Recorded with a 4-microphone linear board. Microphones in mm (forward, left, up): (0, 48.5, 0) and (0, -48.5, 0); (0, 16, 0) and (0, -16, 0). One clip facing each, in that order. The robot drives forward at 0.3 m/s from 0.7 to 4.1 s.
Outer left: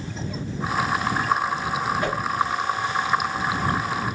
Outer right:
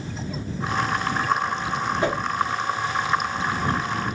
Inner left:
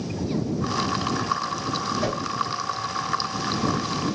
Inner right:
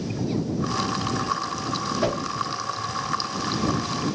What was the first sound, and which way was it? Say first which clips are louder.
A whoosh: outer right 2 dB, inner right 2 dB; 25° right (ahead or behind).